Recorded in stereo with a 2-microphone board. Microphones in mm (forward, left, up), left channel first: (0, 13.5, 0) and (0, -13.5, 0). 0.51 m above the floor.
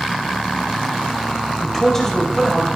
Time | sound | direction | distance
1.6 | a man speaking | 15° left (ahead or behind) | 2.5 m